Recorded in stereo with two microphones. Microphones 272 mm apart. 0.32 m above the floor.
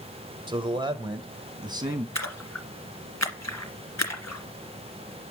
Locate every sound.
0.5 s a man speaking: 15° right (ahead or behind), 1.1 m
2.1 s a splash: 75° left (ahead or behind), 1.9 m